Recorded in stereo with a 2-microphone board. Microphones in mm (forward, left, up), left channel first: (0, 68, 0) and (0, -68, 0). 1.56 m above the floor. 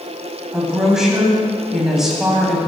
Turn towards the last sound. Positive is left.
turn(degrees=-5)  # may be behind; listen again after turning